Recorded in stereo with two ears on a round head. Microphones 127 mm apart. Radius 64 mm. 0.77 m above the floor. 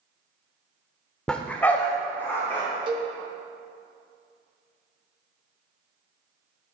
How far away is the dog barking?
About 0.5 m.